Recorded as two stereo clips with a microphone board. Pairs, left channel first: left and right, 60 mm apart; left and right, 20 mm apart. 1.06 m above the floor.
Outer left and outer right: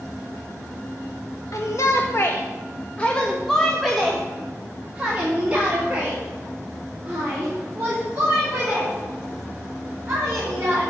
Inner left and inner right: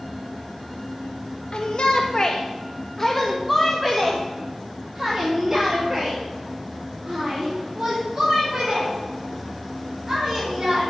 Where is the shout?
60° left (ahead or behind), 1.2 m; by 10.8 s 35° right (ahead or behind), 5.5 m.